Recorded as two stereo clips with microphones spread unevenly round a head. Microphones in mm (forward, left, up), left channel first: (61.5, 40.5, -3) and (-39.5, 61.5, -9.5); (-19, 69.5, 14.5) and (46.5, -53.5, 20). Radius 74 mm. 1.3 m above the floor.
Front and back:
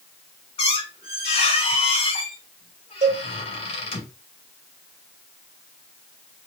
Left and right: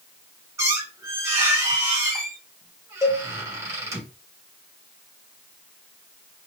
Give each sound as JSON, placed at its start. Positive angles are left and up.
{"t": 0.6, "sound": "a squeak", "azimuth_deg": 5, "distance_m": 2.0}
{"t": 3.0, "sound": "a cowbell", "azimuth_deg": -175, "distance_m": 0.8}